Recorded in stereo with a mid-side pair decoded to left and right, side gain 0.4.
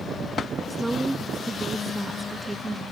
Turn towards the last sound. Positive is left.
turn(degrees=-20)